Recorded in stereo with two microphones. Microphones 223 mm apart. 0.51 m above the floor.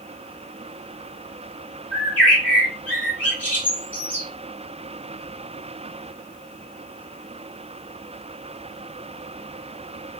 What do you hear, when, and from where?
1.9 s a bird: 5° left (ahead or behind), 1.3 m